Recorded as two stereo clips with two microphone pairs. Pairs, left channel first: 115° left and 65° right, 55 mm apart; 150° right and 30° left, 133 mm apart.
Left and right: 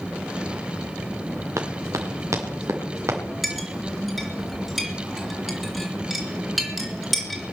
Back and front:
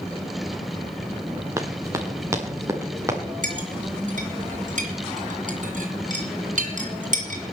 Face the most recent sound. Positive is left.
turn(degrees=25)